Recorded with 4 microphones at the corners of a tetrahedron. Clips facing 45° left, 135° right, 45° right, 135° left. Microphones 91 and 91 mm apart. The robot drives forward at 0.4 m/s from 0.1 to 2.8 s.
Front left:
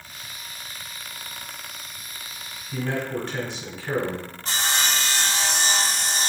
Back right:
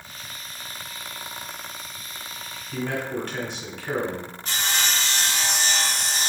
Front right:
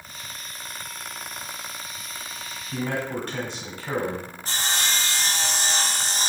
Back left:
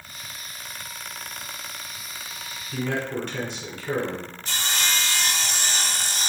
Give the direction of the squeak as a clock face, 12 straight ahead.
No squeak in this recording.